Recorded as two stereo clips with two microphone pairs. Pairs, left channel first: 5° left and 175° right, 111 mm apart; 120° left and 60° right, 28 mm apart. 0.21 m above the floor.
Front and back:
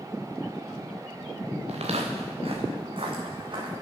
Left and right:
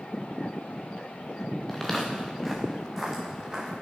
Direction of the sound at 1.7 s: 155° right.